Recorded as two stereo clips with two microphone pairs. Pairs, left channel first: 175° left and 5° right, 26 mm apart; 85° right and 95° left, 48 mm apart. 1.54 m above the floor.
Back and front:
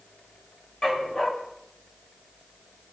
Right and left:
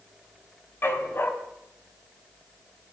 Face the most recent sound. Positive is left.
turn(degrees=-125)